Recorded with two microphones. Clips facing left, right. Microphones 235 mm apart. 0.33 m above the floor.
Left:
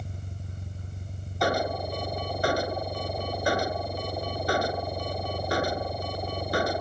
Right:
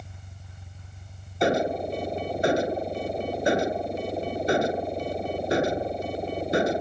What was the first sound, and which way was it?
An engine running, 45° left (ahead or behind).